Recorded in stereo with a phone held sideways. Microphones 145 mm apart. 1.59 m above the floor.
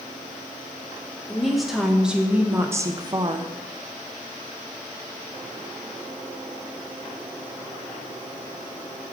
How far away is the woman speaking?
About 1.4 m.